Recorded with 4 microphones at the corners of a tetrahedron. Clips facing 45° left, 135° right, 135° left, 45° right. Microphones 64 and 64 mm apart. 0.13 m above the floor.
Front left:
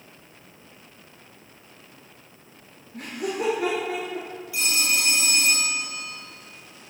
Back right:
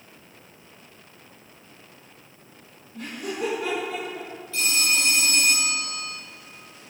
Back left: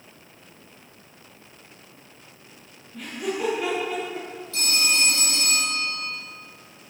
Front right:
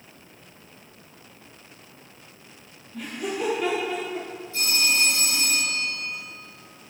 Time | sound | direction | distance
2.9 | laughter | 40° left | 3.5 m
4.5 | a phone ringing | 120° left | 3.5 m